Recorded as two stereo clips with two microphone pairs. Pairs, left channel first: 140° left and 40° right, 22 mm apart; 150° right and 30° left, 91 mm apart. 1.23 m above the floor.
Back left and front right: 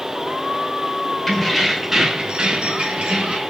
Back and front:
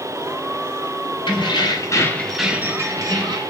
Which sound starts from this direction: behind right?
Keys jangling, at 1.3 s.